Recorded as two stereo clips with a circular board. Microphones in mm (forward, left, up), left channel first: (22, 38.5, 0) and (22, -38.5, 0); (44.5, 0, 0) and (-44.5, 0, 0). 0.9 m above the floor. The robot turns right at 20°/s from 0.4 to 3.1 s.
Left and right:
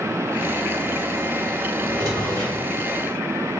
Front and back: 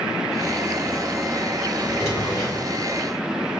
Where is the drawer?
60° right, 1.9 m; by 2.7 s 40° right, 1.9 m.